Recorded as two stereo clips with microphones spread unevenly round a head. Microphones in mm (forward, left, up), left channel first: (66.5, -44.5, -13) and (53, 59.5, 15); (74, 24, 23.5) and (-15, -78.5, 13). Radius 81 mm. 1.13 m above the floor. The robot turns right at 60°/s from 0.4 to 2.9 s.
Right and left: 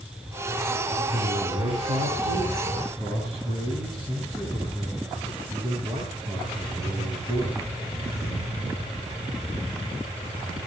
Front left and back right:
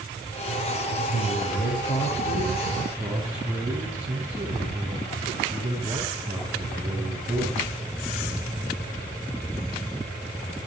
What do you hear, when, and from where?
1.1 s a man speaking: 50° left, 7.5 m; by 7.8 s 160° left, 7.5 m